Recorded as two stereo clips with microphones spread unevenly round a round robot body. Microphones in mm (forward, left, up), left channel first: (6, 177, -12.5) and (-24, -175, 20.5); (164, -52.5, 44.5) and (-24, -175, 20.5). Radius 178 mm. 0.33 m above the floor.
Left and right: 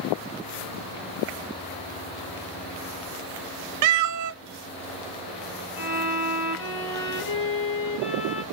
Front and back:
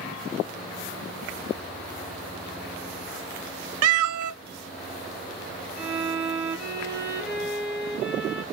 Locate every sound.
3.8 s a cat meowing: 135° right, 0.5 m
5.8 s a violin: 95° left, 5 m